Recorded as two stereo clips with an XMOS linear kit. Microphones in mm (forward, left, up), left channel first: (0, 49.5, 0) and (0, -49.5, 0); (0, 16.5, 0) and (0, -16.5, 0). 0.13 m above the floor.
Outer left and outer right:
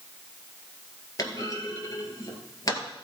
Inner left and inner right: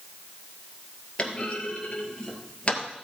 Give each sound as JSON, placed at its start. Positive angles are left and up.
{"t": 1.2, "sound": "a clunk", "side_deg": 35, "distance_m": 2.0}